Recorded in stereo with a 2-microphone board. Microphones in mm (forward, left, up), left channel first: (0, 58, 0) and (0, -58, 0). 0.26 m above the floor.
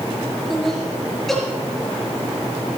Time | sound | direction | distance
0.5 | laughter | centre (ahead or behind) | 4 m